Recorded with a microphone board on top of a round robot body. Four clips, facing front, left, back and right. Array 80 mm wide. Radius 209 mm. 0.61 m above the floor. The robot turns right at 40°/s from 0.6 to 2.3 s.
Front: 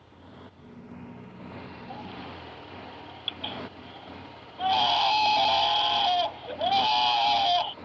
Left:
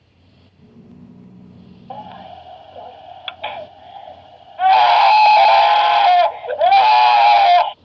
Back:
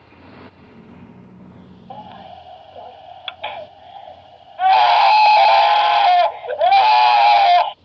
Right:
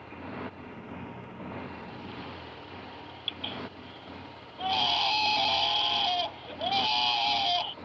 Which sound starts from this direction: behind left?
A baby crying, at 1.9 s.